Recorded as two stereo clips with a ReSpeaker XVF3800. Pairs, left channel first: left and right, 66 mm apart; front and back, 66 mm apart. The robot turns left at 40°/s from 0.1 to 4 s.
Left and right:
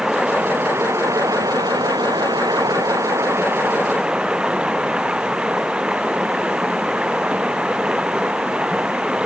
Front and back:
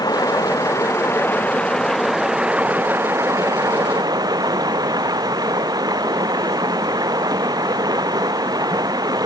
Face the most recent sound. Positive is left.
turn(degrees=-165)